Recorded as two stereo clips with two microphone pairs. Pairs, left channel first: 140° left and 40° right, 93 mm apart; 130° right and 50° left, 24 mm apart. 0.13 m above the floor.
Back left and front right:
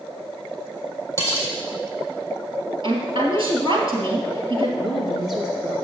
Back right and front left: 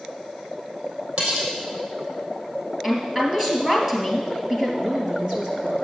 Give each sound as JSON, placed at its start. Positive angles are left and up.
{"t": 1.2, "sound": "cutlery clinking", "azimuth_deg": 80, "distance_m": 3.0}
{"t": 2.8, "sound": "a woman speaking", "azimuth_deg": -15, "distance_m": 3.0}
{"t": 4.8, "sound": "a woman speaking", "azimuth_deg": 50, "distance_m": 2.0}